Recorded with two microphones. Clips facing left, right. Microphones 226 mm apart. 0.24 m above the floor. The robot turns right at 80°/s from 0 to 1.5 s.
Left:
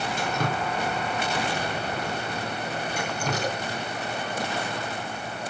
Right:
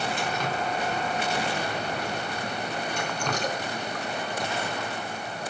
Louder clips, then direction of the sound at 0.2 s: Left 2 dB; 45° left (ahead or behind).